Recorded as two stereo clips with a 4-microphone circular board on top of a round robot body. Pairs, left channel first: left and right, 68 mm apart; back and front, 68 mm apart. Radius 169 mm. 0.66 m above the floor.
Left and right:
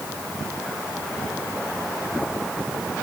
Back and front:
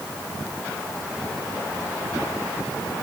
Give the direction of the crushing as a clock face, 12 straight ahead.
No crushing in this recording.